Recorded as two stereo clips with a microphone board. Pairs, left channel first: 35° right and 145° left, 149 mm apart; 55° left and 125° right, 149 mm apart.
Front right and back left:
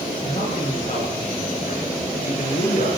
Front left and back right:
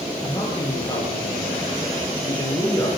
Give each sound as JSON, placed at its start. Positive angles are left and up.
{"t": 0.2, "sound": "a man speaking", "azimuth_deg": 0, "distance_m": 9.5}